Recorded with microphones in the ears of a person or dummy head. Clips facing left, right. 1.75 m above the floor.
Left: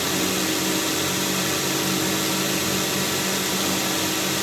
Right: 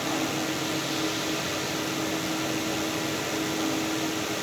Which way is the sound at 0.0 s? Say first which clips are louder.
Left 3 dB; 65° left (ahead or behind).